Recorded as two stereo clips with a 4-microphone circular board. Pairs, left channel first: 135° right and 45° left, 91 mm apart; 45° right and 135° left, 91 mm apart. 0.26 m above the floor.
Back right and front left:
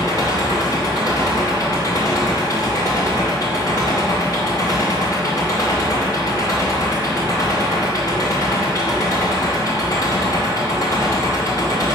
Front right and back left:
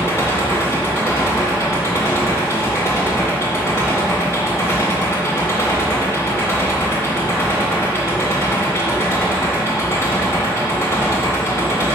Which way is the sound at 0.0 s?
100° right.